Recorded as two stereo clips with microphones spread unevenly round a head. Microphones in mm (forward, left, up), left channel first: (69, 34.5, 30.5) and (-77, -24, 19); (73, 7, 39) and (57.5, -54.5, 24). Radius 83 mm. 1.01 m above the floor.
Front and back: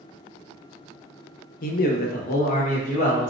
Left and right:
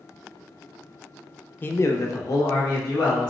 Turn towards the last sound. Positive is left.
turn(degrees=70)